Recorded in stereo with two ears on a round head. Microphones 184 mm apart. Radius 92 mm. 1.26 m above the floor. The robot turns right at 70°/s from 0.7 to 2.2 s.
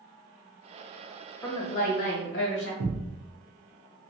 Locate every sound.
1.4 s a woman speaking: 20° left, 1.1 m; by 2.7 s 70° left, 1.1 m
2.8 s a thud: 40° right (ahead or behind), 0.7 m